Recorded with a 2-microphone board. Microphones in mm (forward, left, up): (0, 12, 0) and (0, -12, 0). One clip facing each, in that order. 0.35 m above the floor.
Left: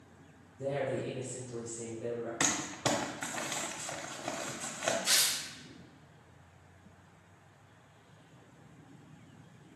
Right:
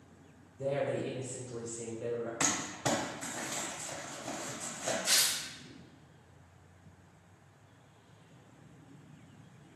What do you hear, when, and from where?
0.6 s a woman speaking: 25° right (ahead or behind), 1.4 m
2.4 s crumpling: 40° left (ahead or behind), 0.6 m
5.0 s tearing paper: 15° left (ahead or behind), 1.2 m